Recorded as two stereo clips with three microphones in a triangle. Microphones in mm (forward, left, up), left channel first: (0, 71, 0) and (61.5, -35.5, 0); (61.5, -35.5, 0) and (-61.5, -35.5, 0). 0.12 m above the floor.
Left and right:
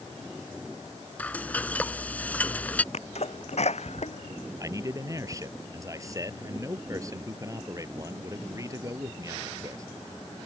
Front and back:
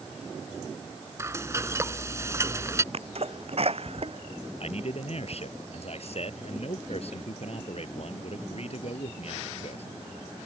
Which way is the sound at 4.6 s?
Straight ahead.